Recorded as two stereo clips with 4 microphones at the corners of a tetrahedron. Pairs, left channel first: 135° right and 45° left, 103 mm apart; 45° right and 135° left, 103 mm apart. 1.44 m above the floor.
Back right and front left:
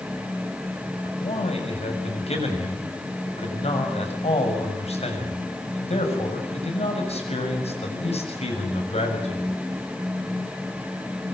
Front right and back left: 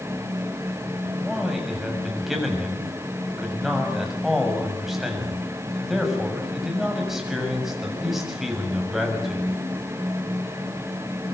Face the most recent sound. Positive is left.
turn(degrees=-135)